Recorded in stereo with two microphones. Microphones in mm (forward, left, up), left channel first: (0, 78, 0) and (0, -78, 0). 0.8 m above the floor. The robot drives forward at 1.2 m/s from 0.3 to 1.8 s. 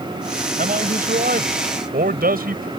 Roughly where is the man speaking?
Right.